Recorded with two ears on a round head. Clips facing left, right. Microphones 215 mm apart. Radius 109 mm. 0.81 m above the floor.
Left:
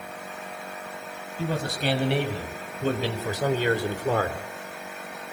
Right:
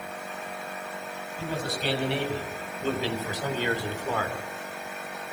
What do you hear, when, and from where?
1.4 s a man speaking: 50° left (ahead or behind), 7 m; by 4.4 s 35° left (ahead or behind), 3 m